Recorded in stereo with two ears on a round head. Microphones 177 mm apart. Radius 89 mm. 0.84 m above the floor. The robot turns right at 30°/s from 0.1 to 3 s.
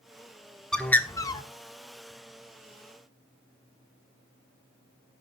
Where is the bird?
5° left (ahead or behind), 1.0 m; by 1.4 s 25° left (ahead or behind), 1.0 m.